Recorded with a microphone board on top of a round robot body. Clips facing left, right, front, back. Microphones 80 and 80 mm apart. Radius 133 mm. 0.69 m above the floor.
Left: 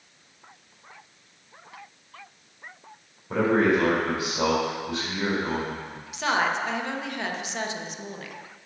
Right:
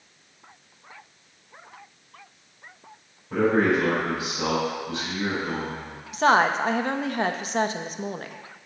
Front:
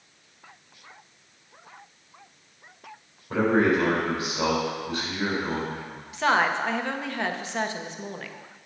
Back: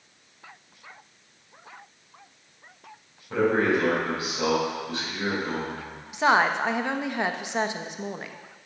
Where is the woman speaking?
115° right, 0.9 m.